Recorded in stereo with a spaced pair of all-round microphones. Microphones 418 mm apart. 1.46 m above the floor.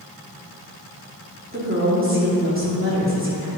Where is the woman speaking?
30° right (ahead or behind), 3 m.